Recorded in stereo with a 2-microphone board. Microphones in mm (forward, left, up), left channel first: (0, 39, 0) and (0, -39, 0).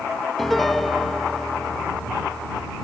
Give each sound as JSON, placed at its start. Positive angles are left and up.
{"t": 0.4, "sound": "a piano", "side_deg": 5}